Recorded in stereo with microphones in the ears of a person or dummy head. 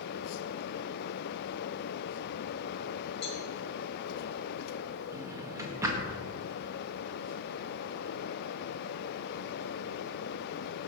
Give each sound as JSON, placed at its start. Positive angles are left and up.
{"t": 3.2, "sound": "a cowbell", "side_deg": 30, "distance_m": 1.6}
{"t": 5.1, "sound": "a drawer", "side_deg": -15, "distance_m": 1.7}